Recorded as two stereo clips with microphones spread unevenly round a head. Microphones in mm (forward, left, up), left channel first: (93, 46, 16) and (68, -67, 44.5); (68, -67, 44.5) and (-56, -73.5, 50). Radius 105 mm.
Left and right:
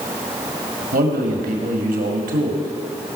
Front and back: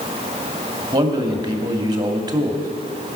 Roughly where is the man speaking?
Behind right.